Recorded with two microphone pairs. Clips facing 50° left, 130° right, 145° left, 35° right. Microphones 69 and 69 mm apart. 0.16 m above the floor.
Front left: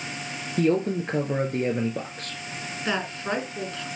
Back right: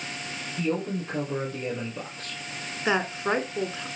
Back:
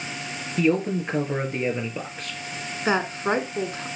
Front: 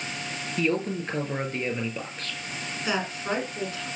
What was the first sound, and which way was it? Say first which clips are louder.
A man speaking: front left 6 dB, back 5 dB; 70° left.